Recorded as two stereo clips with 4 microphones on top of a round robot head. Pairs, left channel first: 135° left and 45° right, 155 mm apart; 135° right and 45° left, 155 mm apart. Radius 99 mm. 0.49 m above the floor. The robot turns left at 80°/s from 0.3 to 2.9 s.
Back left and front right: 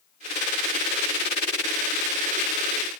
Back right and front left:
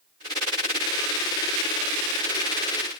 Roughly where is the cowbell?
No cowbell in this recording.